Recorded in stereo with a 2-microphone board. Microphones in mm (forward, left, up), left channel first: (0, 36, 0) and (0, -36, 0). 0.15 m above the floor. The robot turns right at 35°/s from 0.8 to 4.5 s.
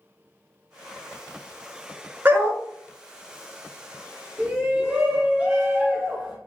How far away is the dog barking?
About 0.6 m.